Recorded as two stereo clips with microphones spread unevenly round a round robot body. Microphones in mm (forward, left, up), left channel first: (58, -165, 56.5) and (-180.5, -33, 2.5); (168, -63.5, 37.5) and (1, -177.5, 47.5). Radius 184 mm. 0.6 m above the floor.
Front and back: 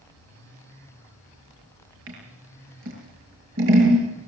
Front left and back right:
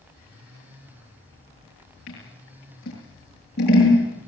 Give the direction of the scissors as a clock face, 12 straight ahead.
9 o'clock.